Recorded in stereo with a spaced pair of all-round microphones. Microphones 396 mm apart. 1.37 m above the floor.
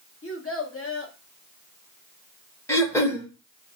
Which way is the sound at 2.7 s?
5° left (ahead or behind).